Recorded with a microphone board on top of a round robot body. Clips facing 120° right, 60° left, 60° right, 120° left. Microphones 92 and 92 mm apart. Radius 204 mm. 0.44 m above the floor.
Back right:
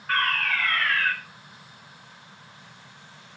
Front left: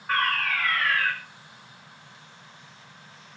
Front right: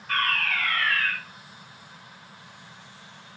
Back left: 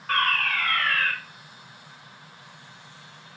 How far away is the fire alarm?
About 5 m.